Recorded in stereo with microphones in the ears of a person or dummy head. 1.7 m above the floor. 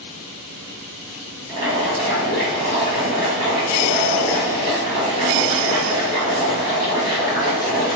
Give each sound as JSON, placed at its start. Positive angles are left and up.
{"t": 1.5, "sound": "boiling", "side_deg": -40, "distance_m": 1.5}